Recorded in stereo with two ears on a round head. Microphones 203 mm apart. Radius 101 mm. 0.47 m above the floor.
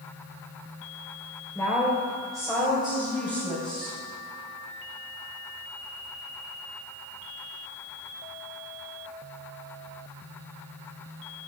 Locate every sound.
1.6 s a woman speaking: 15° left (ahead or behind), 1.8 m; by 4.0 s 10° right (ahead or behind), 3.5 m